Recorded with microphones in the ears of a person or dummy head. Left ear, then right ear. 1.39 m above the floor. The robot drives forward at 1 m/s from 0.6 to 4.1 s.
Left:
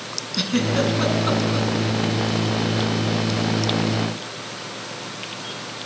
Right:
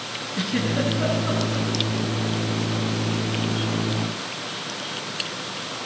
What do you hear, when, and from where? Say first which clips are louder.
0.3 s a giggle: left 4 dB; 80° left, 7 m; by 1.7 s 85° left, 7 m